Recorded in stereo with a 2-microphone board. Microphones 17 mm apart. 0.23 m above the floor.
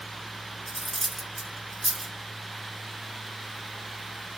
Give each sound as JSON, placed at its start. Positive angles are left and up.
{"t": 0.7, "sound": "cutlery clinking", "side_deg": 5, "distance_m": 1.8}